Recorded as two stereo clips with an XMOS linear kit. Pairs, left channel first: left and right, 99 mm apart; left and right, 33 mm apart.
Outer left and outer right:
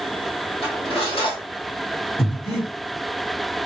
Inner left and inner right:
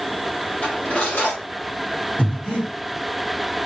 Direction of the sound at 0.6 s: 70° left (ahead or behind).